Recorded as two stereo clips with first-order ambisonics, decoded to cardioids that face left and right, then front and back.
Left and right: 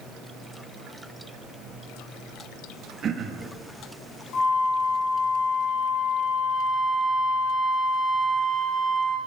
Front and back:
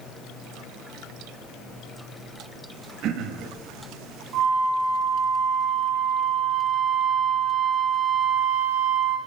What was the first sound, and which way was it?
Throat clearing, 145° right.